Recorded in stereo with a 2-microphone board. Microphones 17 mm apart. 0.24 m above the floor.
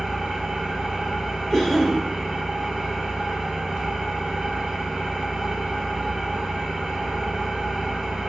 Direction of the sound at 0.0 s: 75° right (ahead or behind).